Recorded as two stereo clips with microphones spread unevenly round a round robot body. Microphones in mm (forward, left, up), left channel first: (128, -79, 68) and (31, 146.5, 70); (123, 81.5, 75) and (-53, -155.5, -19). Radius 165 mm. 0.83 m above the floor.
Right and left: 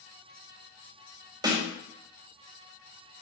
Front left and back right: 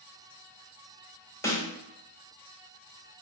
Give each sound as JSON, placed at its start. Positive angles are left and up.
{"t": 1.4, "sound": "a snare drum", "azimuth_deg": 165, "distance_m": 0.8}